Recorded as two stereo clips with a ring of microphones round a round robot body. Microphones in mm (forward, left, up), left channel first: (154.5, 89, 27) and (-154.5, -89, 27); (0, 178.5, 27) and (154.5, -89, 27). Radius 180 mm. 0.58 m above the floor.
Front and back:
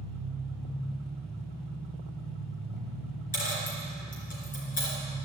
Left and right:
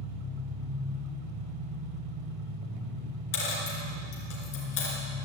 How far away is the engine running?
About 2 m.